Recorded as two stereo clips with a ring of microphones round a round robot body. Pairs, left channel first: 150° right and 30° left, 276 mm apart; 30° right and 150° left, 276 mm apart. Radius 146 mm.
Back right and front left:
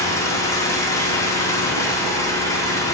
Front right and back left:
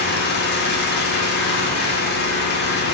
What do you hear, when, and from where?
0.0 s an engine running: 75° right, 1.3 m